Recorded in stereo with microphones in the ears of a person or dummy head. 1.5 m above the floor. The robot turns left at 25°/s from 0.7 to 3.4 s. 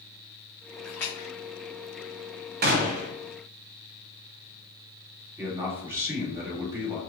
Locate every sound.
0.8 s a splash: 5° left (ahead or behind), 0.9 m; by 1.3 s 15° left (ahead or behind), 0.9 m
2.6 s a gunshot: 45° right (ahead or behind), 0.6 m; by 3.1 s 35° right (ahead or behind), 0.6 m
5.4 s a man speaking: 10° right (ahead or behind), 1.5 m